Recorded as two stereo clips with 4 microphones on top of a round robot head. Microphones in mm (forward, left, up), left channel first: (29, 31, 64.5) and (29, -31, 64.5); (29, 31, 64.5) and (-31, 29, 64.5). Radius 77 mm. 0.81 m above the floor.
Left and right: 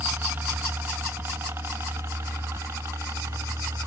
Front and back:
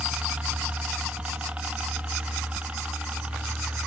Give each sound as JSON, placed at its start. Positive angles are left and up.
{"t": 0.0, "sound": "a helicopter", "azimuth_deg": -120}